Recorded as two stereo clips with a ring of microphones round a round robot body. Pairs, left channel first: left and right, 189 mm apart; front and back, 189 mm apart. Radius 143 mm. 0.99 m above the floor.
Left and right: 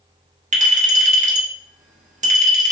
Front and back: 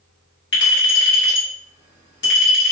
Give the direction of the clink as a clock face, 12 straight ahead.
1 o'clock.